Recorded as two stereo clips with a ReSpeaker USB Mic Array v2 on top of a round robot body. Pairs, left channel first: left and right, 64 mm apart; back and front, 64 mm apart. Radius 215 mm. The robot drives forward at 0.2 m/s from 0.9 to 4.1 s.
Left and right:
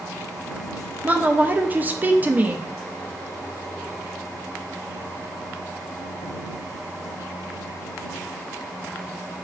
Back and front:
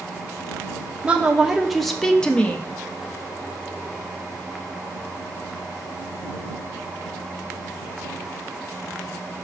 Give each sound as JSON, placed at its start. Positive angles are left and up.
{"t": 1.0, "sound": "a woman speaking", "azimuth_deg": -55, "distance_m": 0.6}